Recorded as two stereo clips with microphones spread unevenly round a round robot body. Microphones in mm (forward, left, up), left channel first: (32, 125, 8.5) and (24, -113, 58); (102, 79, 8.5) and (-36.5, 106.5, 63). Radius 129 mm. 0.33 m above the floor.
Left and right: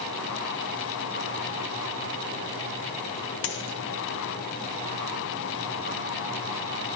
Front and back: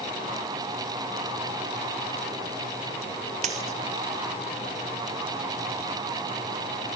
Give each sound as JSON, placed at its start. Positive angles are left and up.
{"t": 3.4, "sound": "a dropped coin", "azimuth_deg": 135, "distance_m": 1.6}